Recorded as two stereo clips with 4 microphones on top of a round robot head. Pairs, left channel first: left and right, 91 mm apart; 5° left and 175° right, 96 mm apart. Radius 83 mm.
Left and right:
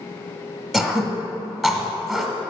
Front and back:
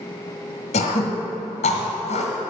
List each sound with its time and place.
0.7 s throat clearing: straight ahead, 1.5 m